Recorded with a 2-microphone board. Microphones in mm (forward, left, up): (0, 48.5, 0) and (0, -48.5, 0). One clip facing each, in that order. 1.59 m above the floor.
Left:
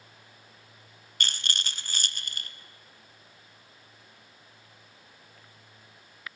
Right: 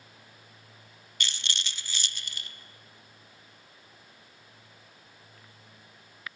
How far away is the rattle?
About 0.9 m.